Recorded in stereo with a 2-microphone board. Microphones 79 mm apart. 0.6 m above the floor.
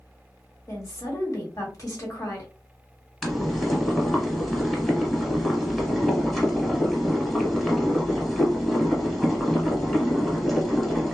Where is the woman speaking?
45° left (ahead or behind), 1.4 m.